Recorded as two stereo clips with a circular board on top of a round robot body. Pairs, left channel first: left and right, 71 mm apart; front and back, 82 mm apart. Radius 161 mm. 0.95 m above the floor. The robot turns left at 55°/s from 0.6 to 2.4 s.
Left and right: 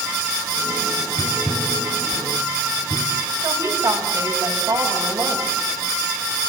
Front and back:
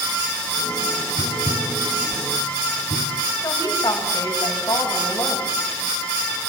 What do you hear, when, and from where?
1.2 s tapping: 50° left, 1.1 m; by 3.2 s 20° right, 1.1 m
3.4 s a woman speaking: 55° right, 7.5 m